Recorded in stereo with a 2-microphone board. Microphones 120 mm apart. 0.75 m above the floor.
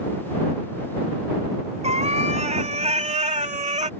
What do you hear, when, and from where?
1.8 s a cat meowing: 70° right (ahead or behind); by 3.9 s 75° right (ahead or behind)